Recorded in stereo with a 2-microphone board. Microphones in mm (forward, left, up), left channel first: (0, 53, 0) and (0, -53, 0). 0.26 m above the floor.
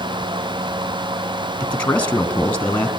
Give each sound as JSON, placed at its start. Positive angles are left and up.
{"t": 1.6, "sound": "a man speaking", "side_deg": 15, "distance_m": 3.0}